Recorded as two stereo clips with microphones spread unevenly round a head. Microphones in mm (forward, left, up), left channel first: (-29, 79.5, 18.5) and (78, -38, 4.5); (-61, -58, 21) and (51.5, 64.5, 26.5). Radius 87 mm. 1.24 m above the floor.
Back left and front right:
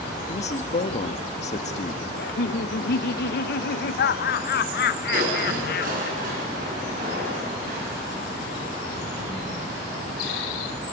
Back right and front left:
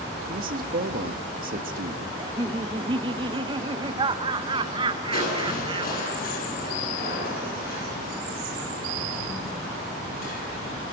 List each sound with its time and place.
0.3 s a man speaking: 85° left, 1.8 m
2.2 s laughter: 110° left, 1.1 m
5.1 s crushing: 95° right, 9.5 m